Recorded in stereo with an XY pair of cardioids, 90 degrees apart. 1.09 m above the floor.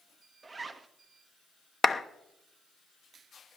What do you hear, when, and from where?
0.4 s a zipper: 30° right, 0.9 m
1.8 s a clap: 30° left, 0.8 m